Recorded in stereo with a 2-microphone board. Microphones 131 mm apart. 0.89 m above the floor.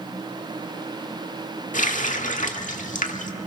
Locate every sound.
1.7 s a running tap: 80° left, 1.4 m